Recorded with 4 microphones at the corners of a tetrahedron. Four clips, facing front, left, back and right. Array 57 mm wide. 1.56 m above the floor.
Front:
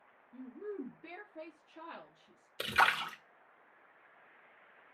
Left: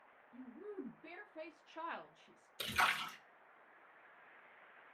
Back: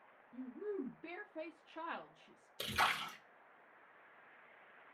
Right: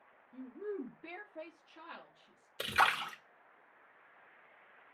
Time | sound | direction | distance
0.3 | a woman speaking | 75° right | 1.0 m
2.6 | a splash | 40° right | 0.7 m